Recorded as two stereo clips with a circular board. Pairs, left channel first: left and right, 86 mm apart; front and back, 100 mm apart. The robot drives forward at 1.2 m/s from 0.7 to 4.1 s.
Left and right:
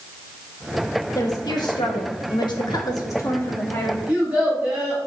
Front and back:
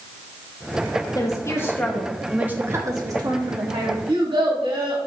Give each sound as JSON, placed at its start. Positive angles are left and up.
{"t": 1.1, "sound": "a woman speaking", "azimuth_deg": 45, "distance_m": 1.7}
{"t": 4.1, "sound": "a child speaking", "azimuth_deg": -170, "distance_m": 4.0}